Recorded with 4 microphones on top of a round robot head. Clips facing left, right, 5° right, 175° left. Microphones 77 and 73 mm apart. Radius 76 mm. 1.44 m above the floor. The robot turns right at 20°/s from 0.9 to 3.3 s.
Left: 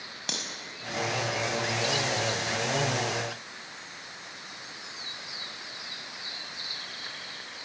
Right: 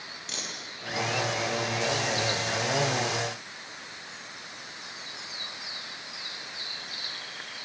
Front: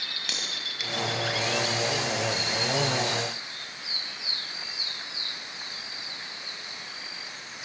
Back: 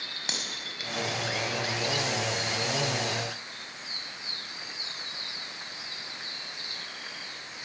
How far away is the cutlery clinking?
About 5.5 m.